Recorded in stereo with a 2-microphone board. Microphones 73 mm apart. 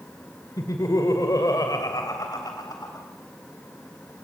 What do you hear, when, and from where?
0.6 s laughter: 55° left (ahead or behind), 2 m; by 3.1 s 65° left (ahead or behind), 3.5 m